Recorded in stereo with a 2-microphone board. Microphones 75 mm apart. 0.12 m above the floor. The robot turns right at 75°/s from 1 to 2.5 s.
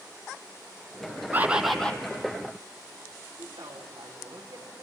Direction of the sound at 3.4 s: 80° right.